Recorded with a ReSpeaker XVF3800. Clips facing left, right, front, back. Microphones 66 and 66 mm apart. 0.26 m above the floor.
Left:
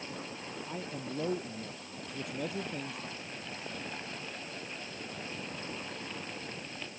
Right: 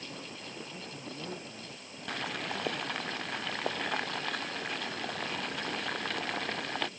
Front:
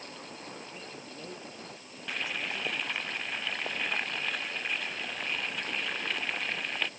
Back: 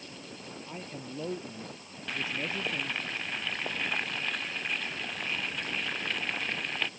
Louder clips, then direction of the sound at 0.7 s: Left 4 dB, back 3 dB; 120° left.